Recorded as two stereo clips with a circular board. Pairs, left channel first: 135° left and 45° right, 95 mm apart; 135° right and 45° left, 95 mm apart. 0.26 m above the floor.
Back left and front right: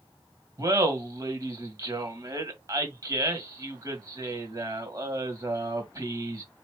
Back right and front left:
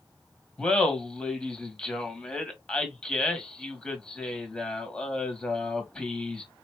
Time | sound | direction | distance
0.6 | laughter | 60° right | 1.7 m